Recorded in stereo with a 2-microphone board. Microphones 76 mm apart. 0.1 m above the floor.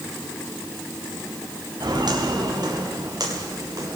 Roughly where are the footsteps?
Right.